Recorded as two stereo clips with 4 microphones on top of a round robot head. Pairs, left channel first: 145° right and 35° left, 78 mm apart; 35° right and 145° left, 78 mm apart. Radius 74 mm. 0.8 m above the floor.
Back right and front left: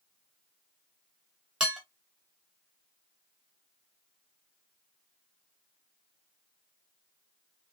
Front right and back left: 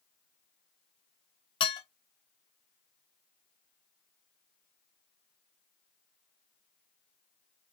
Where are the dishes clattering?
50° right, 1.0 m.